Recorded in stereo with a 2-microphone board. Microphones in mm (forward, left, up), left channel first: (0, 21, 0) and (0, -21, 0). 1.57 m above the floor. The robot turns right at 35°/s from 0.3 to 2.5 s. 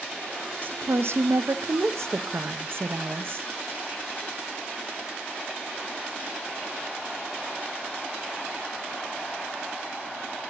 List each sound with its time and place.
0.6 s a woman speaking: 130° right, 1.0 m; by 3.5 s 65° right, 1.0 m